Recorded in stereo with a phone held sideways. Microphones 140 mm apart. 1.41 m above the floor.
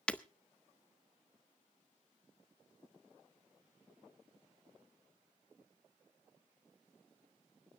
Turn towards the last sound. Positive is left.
turn(degrees=10)  # may be behind; listen again after turning